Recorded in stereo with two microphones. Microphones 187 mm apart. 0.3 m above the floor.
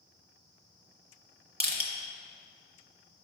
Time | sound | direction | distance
1.6 | crushing | 55° right (ahead or behind) | 1.0 m